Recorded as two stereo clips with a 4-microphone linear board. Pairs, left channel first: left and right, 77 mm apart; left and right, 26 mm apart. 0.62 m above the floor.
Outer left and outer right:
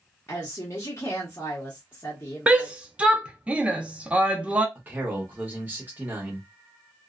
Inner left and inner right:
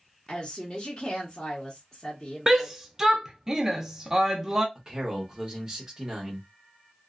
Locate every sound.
0.3 s a woman speaking: 35° left (ahead or behind), 0.9 m
2.5 s a shout: 15° right (ahead or behind), 0.5 m
4.8 s a man speaking: 25° right (ahead or behind), 1.0 m